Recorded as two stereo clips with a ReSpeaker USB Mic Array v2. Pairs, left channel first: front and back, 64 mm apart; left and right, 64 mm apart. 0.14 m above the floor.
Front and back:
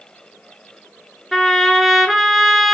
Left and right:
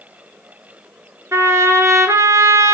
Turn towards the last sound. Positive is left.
turn(degrees=-90)